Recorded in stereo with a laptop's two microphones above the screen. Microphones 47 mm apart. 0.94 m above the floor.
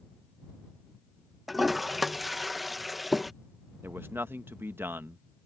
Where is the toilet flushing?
5° right (ahead or behind).